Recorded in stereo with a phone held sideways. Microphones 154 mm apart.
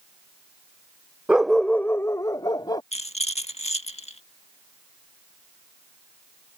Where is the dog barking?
10° right (ahead or behind); by 2.8 s 30° left (ahead or behind).